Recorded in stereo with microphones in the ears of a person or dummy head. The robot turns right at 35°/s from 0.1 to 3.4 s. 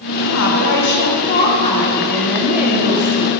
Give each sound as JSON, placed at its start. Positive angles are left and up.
{"t": 0.3, "sound": "a woman speaking", "azimuth_deg": 110, "distance_m": 1.1}